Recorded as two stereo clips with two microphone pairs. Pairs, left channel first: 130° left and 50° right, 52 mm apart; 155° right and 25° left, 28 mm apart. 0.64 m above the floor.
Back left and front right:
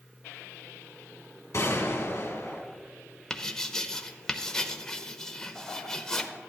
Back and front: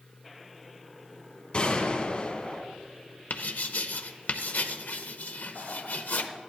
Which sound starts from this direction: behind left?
A gunshot, at 1.5 s.